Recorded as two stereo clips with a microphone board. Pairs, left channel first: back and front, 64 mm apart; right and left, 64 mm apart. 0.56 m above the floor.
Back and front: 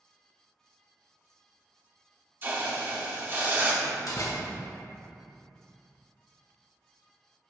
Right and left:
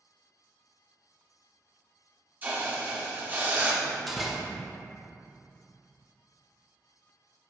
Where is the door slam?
Straight behind, 1.0 m.